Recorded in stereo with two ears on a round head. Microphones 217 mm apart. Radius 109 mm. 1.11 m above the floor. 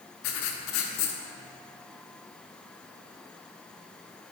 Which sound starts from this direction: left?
Writing, at 0.2 s.